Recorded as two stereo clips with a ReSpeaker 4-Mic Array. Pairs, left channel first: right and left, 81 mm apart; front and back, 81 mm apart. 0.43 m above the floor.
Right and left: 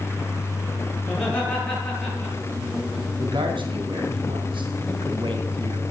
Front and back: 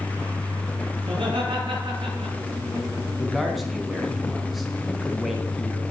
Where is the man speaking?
90° left, 4 m.